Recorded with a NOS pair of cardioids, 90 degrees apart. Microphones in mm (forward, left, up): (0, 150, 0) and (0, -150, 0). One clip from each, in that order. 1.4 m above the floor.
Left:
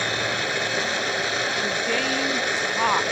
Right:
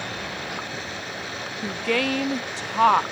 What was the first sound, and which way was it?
A machine running, 65° left.